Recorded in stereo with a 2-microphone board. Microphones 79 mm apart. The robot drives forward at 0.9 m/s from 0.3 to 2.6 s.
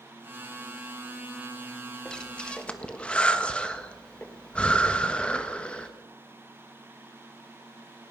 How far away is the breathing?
About 2.0 m.